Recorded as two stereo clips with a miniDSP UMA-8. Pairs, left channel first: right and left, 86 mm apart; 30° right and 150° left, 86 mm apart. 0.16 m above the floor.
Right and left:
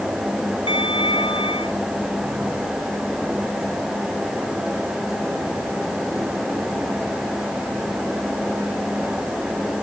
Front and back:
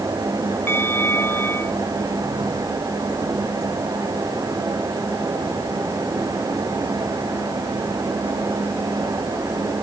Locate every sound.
0.7 s a bell: 95° right